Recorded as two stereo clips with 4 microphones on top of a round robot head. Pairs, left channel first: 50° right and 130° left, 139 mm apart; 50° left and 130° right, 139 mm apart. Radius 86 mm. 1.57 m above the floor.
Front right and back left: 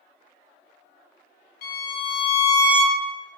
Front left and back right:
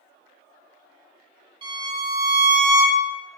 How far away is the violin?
About 1.3 m.